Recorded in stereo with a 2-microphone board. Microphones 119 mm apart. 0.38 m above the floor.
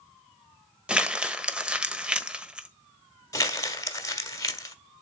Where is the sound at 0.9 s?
10° right (ahead or behind), 1.2 m.